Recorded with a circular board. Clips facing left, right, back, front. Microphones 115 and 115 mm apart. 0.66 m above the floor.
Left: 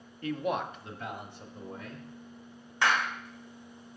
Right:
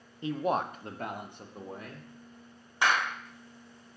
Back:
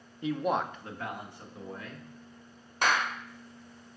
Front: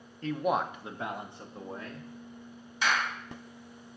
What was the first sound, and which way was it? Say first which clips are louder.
A man speaking: right 2 dB, even; 120° right.